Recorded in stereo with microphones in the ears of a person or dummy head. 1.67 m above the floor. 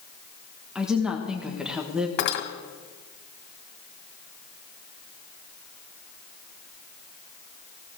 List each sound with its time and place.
0.8 s a woman speaking: centre (ahead or behind), 1.2 m
2.2 s cutlery clinking: 65° left (ahead or behind), 2 m